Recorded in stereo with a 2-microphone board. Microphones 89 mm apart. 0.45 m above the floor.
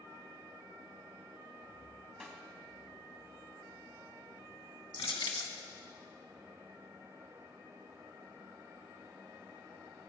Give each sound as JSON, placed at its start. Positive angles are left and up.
{"t": 2.2, "sound": "a snare drum", "side_deg": -5, "distance_m": 1.6}
{"t": 4.9, "sound": "crushing", "side_deg": 70, "distance_m": 1.8}